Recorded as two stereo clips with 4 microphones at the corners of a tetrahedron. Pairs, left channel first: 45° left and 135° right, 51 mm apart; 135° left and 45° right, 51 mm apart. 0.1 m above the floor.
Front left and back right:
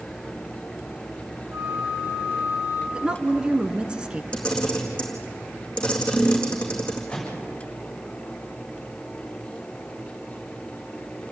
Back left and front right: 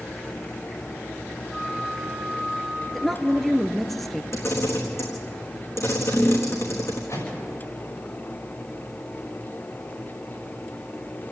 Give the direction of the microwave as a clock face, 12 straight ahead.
8 o'clock.